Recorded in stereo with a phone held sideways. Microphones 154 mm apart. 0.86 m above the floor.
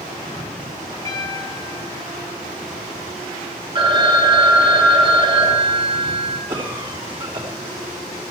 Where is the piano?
20° left (ahead or behind), 5 m.